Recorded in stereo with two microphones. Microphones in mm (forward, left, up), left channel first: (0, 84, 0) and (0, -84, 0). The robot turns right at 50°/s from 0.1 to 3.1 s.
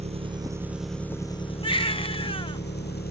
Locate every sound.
0.0 s an engine running: 40° right; by 3.1 s 110° left
1.6 s a baby crying: 70° left; by 2.6 s 120° left